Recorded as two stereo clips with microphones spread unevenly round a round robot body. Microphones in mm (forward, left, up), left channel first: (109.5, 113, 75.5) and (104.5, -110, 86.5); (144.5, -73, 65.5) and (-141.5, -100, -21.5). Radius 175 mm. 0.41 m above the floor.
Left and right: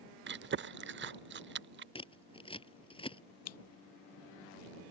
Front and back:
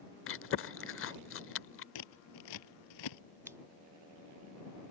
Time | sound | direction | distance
0.3 | chewing | 50° right | ?
1.9 | scissors | 20° left | ?
3.5 | scissors | 100° left | ?